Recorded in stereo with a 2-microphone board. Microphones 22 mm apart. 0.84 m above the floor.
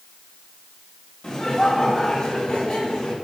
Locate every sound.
1.2 s laughter: 40° left (ahead or behind), 2.5 m; by 3.1 s 55° left (ahead or behind), 4 m